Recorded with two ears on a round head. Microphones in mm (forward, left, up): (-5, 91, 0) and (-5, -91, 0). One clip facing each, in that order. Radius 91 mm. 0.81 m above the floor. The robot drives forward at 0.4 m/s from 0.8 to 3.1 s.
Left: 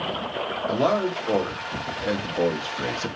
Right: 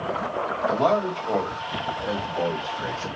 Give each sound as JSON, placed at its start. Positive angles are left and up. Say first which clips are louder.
{"t": 0.7, "sound": "a man speaking", "louder": "even", "side_deg": 25, "distance_m": 1.4}